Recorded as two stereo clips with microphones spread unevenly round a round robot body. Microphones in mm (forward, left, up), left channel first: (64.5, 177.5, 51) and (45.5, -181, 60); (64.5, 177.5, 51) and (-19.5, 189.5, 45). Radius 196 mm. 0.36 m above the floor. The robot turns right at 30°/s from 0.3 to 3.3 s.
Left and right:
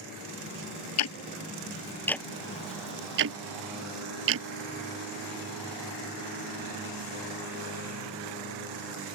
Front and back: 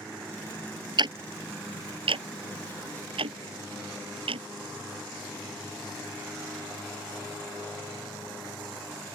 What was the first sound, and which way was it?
Ticking, 140° left.